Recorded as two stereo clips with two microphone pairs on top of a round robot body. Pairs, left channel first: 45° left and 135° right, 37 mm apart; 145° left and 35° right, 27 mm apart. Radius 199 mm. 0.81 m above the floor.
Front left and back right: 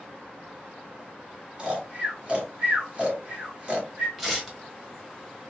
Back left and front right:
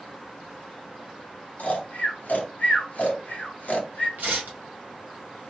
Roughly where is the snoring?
Behind.